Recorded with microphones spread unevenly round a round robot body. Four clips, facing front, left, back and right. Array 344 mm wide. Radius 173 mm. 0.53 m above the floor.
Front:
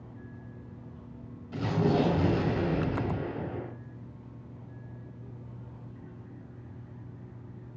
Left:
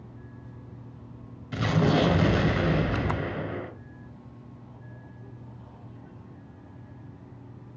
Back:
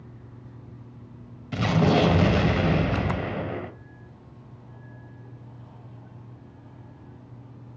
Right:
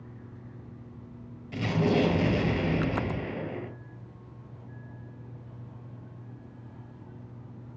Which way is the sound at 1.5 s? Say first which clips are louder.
Left 2 dB, back 5 dB; 165° left.